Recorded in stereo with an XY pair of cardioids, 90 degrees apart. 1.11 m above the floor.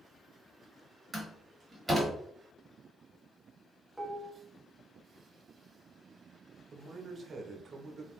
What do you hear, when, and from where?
1.1 s a door slam: 20° right, 2 m
4.0 s dishes clattering: straight ahead, 0.8 m
6.7 s a man speaking: 50° right, 1.0 m